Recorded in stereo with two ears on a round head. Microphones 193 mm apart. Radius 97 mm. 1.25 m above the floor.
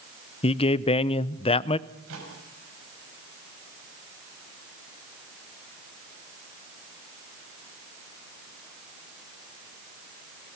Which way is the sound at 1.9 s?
65° right (ahead or behind).